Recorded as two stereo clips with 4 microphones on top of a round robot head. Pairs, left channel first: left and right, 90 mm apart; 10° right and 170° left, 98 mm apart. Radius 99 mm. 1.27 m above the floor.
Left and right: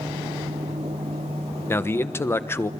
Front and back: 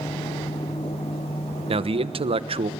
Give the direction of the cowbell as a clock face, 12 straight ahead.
No cowbell in this recording.